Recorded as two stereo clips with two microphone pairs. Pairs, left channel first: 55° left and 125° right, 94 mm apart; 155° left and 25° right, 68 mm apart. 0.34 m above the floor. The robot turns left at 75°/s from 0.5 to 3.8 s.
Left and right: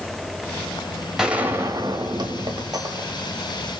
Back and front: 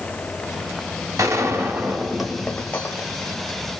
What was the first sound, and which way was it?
A gunshot, 35° right.